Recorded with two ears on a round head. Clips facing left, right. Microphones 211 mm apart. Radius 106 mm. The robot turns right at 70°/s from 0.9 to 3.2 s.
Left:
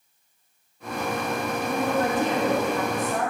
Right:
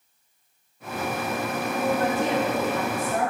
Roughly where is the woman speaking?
Left.